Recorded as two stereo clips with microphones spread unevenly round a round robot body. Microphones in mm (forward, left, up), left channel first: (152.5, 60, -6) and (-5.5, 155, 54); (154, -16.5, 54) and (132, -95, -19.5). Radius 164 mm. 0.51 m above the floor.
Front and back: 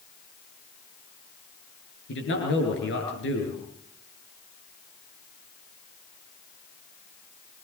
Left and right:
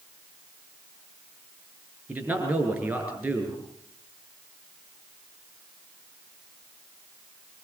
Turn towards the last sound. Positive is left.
turn(degrees=-35)